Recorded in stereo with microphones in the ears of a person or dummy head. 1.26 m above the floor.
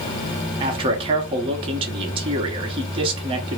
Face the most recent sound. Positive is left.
turn(degrees=-30)  # may be behind; listen again after turning